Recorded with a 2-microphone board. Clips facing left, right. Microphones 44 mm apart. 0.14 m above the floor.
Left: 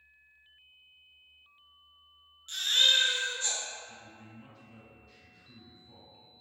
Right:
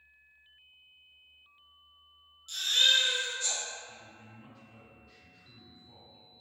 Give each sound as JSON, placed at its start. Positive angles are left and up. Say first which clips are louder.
{"t": 2.5, "sound": "a baby crying", "louder": "even", "side_deg": 40, "distance_m": 0.7}
{"t": 3.9, "sound": "a man speaking", "louder": "left 1 dB", "side_deg": 0, "distance_m": 1.9}